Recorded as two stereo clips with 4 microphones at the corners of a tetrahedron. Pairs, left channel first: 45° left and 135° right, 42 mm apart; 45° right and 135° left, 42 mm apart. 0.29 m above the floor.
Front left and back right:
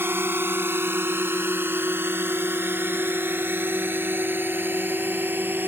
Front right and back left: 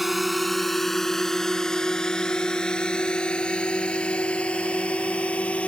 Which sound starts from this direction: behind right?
A drone, at 0.0 s.